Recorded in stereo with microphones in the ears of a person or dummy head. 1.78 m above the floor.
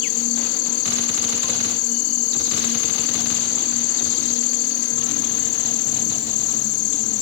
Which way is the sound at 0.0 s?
55° left (ahead or behind).